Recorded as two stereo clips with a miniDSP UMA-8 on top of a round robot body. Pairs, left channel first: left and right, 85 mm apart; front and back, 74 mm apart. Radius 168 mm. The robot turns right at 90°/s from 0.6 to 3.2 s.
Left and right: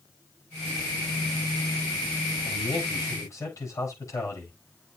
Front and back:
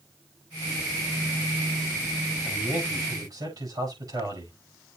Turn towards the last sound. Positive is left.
turn(degrees=145)